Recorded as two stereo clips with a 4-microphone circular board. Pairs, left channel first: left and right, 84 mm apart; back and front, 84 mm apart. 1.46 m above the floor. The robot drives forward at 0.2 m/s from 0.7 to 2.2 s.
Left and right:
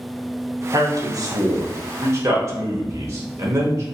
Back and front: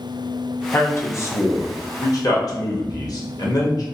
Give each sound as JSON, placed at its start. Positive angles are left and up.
{"t": 0.7, "sound": "a man speaking", "azimuth_deg": -120, "distance_m": 0.6}